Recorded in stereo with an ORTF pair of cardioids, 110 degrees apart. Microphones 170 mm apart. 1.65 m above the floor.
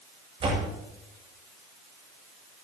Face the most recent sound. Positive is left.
turn(degrees=-30)